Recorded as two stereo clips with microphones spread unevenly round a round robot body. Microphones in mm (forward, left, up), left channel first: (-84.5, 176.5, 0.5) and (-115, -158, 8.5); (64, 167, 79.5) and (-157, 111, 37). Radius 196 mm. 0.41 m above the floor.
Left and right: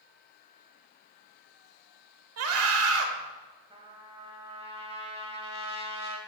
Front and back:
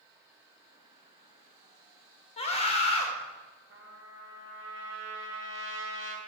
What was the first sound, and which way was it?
A scream, 55° right.